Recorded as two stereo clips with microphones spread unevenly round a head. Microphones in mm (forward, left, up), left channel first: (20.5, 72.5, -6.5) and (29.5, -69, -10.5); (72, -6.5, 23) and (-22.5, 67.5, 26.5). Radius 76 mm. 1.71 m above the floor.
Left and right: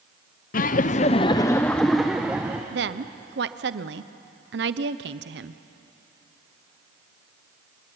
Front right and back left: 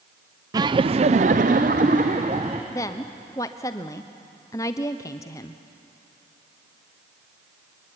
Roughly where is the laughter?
Left.